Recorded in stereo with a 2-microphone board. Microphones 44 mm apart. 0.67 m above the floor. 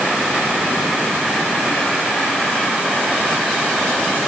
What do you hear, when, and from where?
Only background noise.